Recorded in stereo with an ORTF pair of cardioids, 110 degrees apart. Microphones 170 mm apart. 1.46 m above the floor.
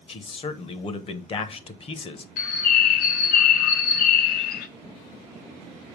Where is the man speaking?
35° left, 0.9 m.